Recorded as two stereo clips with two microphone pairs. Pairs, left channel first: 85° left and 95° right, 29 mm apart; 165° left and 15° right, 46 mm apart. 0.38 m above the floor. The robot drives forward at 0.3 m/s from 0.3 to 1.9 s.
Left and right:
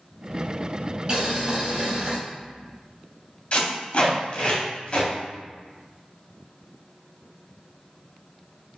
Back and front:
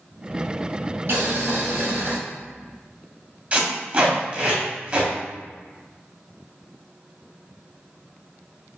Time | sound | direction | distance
1.1 | boiling | 35° right | 1.1 m
3.5 | tape being pulled | 45° left | 1.4 m